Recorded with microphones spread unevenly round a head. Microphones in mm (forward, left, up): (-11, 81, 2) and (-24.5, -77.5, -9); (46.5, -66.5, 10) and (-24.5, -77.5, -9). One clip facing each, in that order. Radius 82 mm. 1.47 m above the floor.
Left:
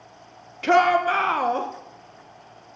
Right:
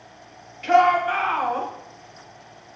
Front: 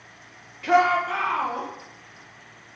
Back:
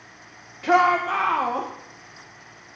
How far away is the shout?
About 1.2 m.